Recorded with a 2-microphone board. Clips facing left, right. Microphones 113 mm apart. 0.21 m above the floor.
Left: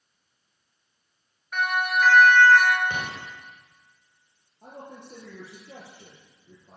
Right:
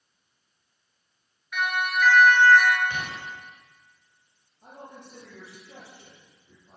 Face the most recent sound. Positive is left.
turn(degrees=65)  # may be behind; listen again after turning